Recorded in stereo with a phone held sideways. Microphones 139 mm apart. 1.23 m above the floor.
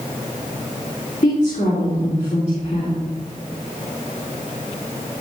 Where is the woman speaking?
55° left (ahead or behind), 3 m.